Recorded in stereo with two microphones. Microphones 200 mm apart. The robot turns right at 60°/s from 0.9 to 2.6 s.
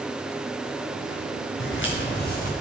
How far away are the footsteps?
About 3 m.